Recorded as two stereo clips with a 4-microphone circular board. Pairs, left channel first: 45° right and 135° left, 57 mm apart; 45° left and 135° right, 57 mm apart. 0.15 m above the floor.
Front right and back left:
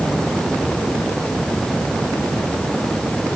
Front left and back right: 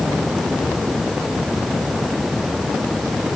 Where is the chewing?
I don't hear chewing.